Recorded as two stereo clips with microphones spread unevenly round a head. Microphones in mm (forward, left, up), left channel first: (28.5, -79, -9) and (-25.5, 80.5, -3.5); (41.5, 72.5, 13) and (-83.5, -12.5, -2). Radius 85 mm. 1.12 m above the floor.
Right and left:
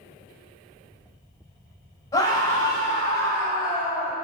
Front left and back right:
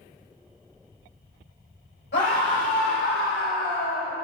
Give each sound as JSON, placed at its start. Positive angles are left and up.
{"t": 2.1, "sound": "a scream", "azimuth_deg": -5, "distance_m": 4.5}